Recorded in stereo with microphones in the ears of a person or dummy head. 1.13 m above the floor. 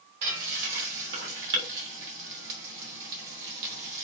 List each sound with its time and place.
0.2 s frying: 60° right (ahead or behind), 0.8 m